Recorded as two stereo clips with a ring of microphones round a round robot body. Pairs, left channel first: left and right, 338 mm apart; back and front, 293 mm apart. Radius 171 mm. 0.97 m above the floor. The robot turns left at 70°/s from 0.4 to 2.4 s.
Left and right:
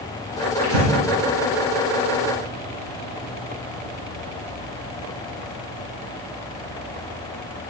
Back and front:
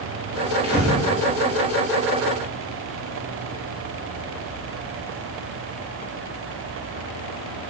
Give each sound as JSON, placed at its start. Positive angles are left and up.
{"t": 0.6, "sound": "breathing", "azimuth_deg": -75, "distance_m": 5.0}